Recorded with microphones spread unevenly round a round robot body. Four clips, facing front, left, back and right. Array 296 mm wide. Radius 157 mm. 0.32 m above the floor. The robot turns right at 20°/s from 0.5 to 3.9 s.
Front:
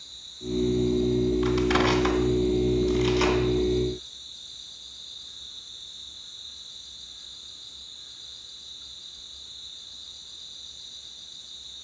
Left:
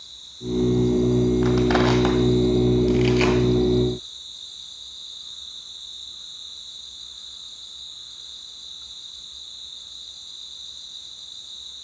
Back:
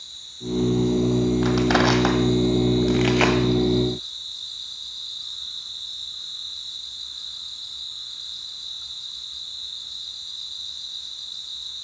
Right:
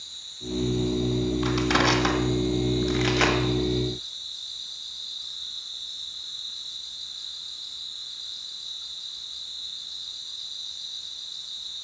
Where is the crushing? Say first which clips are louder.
Left 5 dB, back 3 dB; 155° left, 2 m; by 3.4 s 165° right, 2 m.